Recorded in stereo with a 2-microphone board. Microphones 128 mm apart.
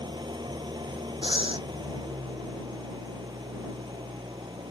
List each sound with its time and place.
0.0 s an engine running: 35° right (ahead or behind)
1.2 s breathing: 40° right (ahead or behind)